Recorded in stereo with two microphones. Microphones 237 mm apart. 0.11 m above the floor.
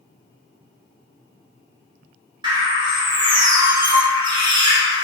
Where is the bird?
20° right (ahead or behind), 1.7 m.